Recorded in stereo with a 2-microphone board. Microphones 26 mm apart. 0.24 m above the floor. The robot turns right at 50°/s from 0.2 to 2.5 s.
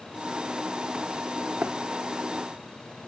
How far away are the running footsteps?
About 1.9 m.